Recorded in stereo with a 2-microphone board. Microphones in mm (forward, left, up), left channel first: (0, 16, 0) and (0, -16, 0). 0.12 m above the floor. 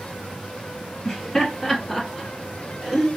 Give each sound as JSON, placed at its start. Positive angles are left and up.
{"t": 1.1, "sound": "laughter", "side_deg": 10, "distance_m": 1.8}